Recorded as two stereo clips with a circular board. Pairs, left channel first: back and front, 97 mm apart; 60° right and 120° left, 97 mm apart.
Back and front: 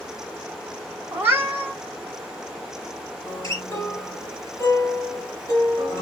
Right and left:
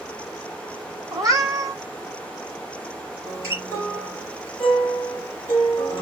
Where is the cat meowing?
65° left, 0.8 m.